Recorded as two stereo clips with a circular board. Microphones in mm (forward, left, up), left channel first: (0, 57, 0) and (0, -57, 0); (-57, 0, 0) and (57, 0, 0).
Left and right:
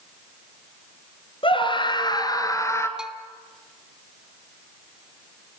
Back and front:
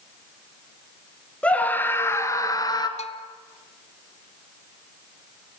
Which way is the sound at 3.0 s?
175° right.